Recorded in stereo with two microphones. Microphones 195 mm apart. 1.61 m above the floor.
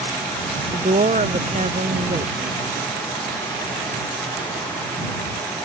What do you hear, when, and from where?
0.7 s a woman speaking: 40° right (ahead or behind)